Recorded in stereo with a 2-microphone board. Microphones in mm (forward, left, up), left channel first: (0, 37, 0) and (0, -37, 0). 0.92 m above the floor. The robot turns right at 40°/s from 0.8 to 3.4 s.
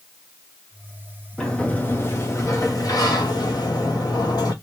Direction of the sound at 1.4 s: 10° left.